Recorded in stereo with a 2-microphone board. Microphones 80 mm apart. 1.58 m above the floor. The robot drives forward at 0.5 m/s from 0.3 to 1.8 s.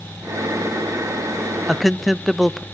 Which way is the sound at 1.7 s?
Centre (ahead or behind).